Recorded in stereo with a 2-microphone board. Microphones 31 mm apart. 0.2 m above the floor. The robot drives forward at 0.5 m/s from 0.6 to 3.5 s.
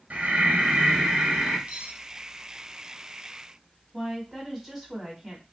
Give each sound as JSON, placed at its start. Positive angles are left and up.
{"t": 0.1, "sound": "breathing", "side_deg": -50, "distance_m": 1.1}
{"t": 1.7, "sound": "cutlery clinking", "side_deg": -40, "distance_m": 0.8}
{"t": 3.9, "sound": "a woman speaking", "side_deg": -5, "distance_m": 1.0}